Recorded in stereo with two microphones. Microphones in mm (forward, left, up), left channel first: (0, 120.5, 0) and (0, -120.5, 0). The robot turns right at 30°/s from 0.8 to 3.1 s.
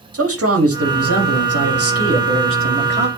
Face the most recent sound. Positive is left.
turn(degrees=-40)